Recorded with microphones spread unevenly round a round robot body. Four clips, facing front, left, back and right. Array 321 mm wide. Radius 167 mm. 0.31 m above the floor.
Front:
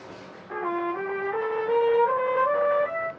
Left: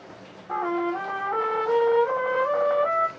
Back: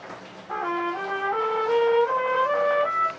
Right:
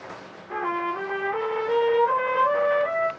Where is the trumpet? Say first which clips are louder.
Left 1 dB, back 1 dB; 125° left, 1.4 m.